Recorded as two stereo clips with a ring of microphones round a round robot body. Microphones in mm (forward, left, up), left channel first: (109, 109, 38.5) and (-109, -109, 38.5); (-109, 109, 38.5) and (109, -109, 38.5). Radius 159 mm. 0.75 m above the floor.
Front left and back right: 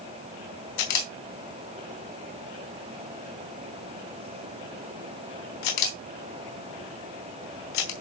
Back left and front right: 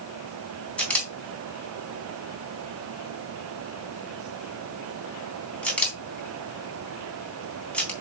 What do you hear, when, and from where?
0.8 s a camera shutter: 50° left, 3.5 m